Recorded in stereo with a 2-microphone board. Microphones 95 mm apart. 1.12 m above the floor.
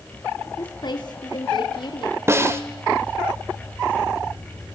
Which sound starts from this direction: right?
A snare drum, at 2.3 s.